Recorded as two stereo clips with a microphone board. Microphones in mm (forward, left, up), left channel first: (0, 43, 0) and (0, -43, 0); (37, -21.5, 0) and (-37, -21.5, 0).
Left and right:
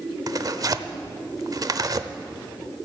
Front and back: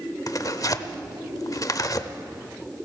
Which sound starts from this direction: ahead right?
Tearing paper, at 0.3 s.